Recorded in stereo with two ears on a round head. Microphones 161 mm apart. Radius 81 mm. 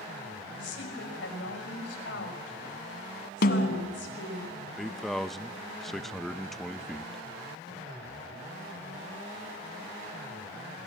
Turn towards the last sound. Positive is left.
turn(degrees=0)  # may be behind; listen again after turning